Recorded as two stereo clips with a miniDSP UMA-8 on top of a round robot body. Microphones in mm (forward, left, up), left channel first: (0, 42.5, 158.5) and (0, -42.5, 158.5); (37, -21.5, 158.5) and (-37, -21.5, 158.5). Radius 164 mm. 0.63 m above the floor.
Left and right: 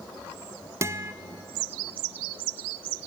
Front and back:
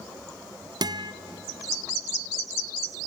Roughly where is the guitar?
Behind right.